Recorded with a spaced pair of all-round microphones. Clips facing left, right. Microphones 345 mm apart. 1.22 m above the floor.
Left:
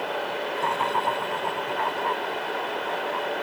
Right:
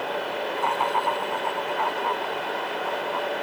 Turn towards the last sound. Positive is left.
turn(degrees=25)  # may be behind; listen again after turning